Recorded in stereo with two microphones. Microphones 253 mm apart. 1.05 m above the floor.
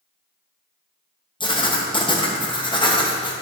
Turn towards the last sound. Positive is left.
turn(degrees=20)  # may be behind; listen again after turning